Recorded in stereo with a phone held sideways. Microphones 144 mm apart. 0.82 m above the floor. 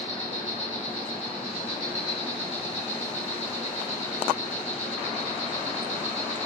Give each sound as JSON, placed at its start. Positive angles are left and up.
{"t": 0.0, "sound": "an insect", "side_deg": 45, "distance_m": 1.0}